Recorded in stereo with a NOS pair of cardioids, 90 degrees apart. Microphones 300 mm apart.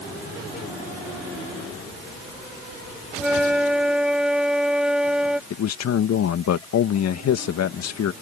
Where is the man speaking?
60° left.